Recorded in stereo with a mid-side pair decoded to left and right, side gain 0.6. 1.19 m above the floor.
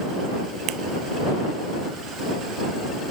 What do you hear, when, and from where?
0.7 s a finger snap: 65° right